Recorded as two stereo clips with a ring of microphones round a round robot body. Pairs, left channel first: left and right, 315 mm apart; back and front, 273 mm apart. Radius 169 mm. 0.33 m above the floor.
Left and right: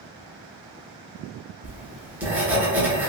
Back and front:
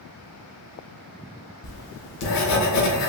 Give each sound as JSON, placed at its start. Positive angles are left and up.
{"t": 1.6, "sound": "writing", "azimuth_deg": -175, "distance_m": 0.8}